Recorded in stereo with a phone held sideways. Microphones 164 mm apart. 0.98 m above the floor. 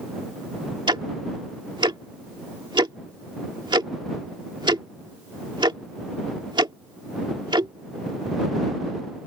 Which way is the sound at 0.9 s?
30° right (ahead or behind).